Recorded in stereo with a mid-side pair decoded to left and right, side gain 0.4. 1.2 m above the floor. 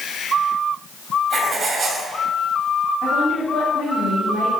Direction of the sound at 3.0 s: 65° left.